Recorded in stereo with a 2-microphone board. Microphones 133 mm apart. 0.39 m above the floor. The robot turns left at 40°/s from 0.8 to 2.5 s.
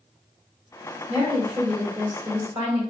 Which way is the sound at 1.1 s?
20° right.